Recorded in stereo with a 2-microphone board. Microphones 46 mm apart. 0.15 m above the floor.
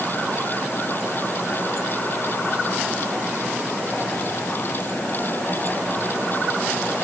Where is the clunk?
No clunk in this recording.